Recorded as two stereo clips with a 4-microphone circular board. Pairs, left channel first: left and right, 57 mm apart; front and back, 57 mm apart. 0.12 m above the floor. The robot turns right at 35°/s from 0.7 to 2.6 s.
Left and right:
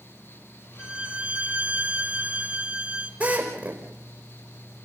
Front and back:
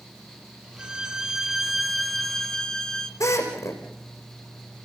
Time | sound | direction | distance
0.8 | a violin | 130° right | 1.7 m
3.2 | a drill | 25° right | 4.5 m